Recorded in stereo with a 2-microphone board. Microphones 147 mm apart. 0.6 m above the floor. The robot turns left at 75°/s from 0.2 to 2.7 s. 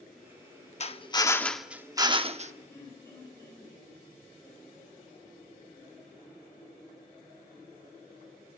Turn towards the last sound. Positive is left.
turn(degrees=20)  # may be behind; listen again after turning